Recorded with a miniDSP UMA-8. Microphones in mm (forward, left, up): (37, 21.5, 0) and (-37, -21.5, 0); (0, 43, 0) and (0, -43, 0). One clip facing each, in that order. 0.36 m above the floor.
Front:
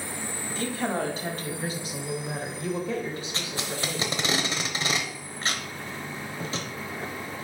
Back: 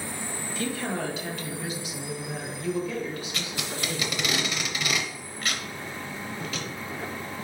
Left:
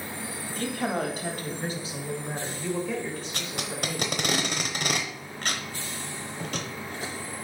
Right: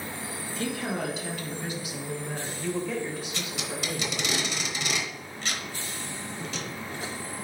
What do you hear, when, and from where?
0.5 s a woman speaking: 75° left, 1.9 m; by 4.2 s 40° right, 1.4 m
3.3 s tape being pulled: 80° left, 1.0 m